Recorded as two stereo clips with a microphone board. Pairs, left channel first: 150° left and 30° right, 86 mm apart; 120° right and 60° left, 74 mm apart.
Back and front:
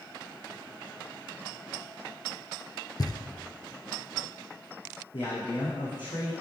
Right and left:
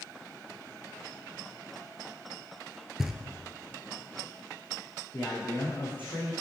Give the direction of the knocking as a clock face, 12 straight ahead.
7 o'clock.